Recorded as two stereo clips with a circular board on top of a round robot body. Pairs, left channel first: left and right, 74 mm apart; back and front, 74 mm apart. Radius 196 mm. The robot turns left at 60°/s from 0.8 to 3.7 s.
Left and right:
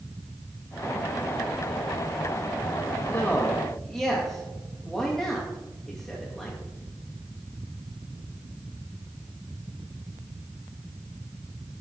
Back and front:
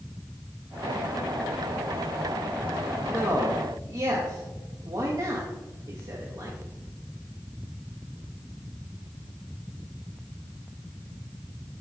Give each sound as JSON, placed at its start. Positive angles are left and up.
{"t": 3.1, "sound": "a man speaking", "azimuth_deg": 45, "distance_m": 2.0}